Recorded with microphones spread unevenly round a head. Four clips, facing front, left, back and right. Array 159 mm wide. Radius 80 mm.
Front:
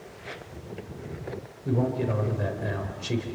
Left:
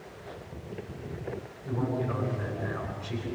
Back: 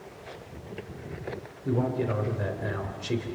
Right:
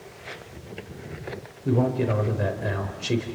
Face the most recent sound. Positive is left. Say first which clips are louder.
# right 8 dB, front 1 dB
turn(degrees=-120)